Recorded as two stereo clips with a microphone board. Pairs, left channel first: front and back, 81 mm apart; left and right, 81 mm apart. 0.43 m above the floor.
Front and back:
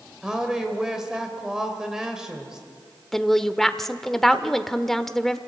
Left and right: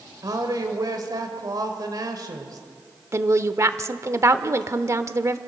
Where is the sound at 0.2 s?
100° right, 2 m.